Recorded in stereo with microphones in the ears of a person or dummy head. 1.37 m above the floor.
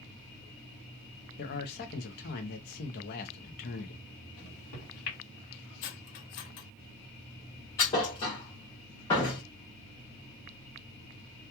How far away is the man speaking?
About 0.6 m.